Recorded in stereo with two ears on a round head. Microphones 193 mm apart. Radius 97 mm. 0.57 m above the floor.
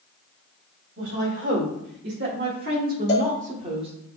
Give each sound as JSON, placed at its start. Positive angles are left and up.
{"t": 1.0, "sound": "a woman speaking", "side_deg": -55, "distance_m": 1.7}
{"t": 3.1, "sound": "a cowbell", "side_deg": 55, "distance_m": 0.9}